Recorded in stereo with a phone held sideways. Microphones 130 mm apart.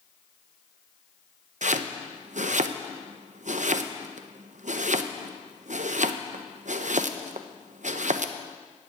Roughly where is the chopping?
Right.